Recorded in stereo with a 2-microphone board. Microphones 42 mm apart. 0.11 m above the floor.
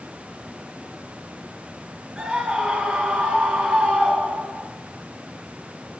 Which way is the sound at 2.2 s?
25° right (ahead or behind).